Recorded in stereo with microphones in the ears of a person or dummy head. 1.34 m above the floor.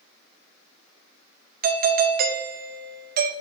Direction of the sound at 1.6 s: 45° right (ahead or behind).